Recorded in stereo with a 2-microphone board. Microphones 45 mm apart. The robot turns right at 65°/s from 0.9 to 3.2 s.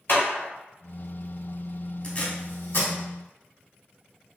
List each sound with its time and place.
0.1 s a clap: 50° left (ahead or behind), 1.8 m
2.0 s tape being pulled: 30° left (ahead or behind), 0.8 m; by 2.9 s 65° left (ahead or behind), 0.8 m